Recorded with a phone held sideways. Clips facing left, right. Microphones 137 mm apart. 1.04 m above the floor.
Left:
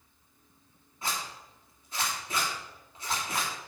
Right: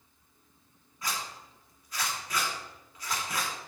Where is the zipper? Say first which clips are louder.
Left 1 dB; 25° left (ahead or behind), 3 m.